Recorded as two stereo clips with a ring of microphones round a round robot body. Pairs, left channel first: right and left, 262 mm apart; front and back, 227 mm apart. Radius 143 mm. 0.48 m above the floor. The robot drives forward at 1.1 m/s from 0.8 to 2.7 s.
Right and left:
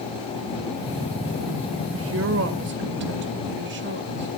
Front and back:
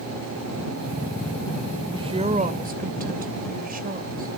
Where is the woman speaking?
115° left, 2 m; by 4.4 s 135° left, 2.5 m.